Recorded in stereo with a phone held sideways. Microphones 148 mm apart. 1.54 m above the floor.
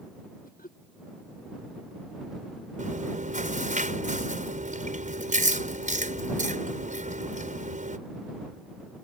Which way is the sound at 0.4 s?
75° left (ahead or behind).